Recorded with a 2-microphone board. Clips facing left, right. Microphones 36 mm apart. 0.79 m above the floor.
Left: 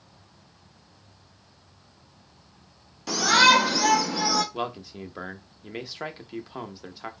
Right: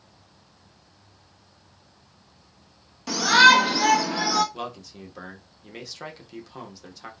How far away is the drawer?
I don't hear a drawer.